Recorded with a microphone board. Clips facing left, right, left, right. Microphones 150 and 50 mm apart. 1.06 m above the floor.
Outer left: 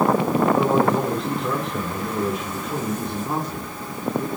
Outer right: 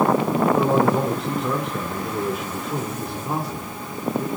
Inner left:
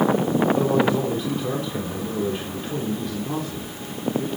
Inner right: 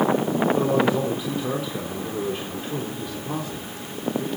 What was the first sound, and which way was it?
A man speaking, 5° right (ahead or behind).